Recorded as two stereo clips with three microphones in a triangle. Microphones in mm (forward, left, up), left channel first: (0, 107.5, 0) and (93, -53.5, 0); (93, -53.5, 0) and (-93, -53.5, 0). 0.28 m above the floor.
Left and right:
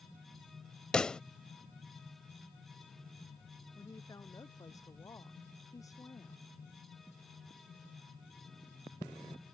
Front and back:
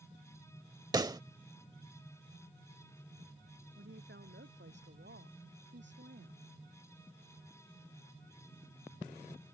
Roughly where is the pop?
Behind.